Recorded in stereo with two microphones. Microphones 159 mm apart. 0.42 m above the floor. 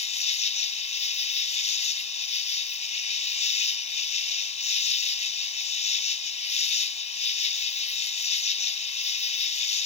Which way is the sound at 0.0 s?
45° left (ahead or behind).